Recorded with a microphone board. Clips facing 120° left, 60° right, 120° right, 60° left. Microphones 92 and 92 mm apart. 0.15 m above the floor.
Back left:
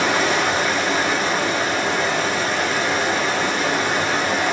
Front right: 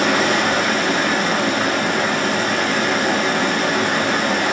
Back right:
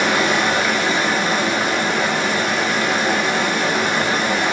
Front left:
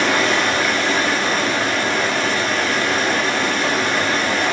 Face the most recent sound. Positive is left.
turn(degrees=-45)